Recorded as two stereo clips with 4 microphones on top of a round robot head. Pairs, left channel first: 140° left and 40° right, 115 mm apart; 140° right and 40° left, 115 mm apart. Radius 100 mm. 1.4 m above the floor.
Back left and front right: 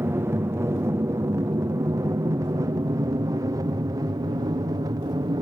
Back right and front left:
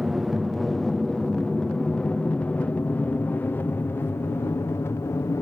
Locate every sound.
0.0 s an aircraft: 40° right; by 5.4 s 80° right